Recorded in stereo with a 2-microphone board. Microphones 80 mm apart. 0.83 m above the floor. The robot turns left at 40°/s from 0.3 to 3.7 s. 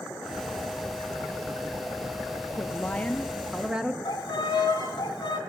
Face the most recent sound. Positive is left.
turn(degrees=75)  # may be behind; listen again after turning